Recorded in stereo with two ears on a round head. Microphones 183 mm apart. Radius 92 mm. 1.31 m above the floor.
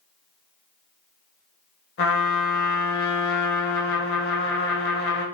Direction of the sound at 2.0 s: 50° left (ahead or behind).